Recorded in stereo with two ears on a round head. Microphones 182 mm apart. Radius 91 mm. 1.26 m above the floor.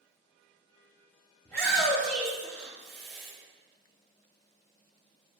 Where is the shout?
10° left (ahead or behind), 1.6 m.